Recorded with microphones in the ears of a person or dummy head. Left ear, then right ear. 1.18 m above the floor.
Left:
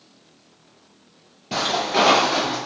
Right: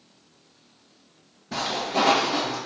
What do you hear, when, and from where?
1.5 s footsteps: 45° left (ahead or behind), 1.7 m; by 2.6 s 40° left (ahead or behind), 2.5 m